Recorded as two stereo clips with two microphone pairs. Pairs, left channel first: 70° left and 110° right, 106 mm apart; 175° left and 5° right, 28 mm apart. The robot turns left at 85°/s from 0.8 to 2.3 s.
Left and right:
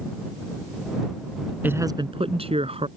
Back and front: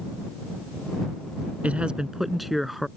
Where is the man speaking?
35° right; by 2.9 s 90° right.